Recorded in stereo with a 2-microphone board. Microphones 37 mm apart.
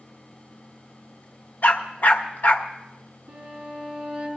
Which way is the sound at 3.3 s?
40° right (ahead or behind).